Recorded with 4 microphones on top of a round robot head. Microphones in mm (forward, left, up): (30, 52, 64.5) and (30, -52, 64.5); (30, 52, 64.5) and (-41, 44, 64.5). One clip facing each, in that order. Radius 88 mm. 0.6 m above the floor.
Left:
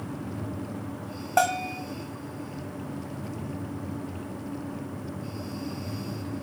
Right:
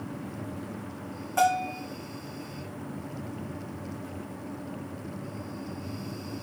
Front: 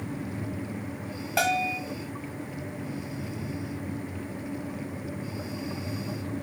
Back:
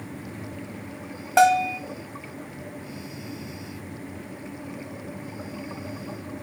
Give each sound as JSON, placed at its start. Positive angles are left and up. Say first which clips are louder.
{"t": 1.4, "sound": "a bell", "louder": "even, back 8 dB", "azimuth_deg": 125, "distance_m": 1.0}